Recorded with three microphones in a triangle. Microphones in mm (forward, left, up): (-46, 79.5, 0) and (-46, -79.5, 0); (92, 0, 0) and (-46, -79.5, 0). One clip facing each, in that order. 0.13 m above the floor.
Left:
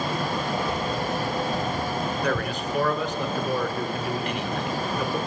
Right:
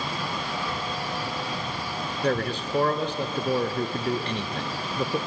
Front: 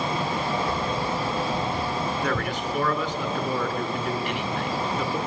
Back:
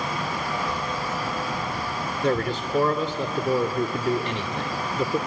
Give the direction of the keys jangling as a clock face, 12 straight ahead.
11 o'clock.